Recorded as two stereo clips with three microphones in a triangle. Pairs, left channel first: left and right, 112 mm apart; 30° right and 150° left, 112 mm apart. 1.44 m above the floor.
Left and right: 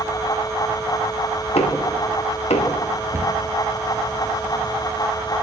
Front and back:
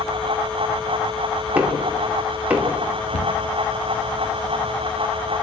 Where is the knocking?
75° left, 3 m.